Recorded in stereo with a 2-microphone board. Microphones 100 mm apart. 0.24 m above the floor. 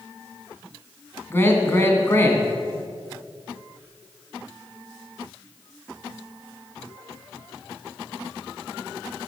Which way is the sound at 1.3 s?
20° left (ahead or behind).